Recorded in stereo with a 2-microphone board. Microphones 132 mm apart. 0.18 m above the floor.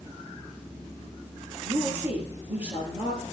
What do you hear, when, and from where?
1.6 s a woman speaking: 15° right (ahead or behind), 3.5 m